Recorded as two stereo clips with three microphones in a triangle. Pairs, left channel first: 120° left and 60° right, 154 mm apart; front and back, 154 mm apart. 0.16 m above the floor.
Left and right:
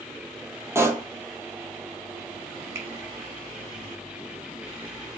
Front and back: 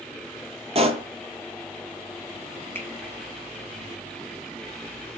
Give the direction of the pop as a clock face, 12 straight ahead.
4 o'clock.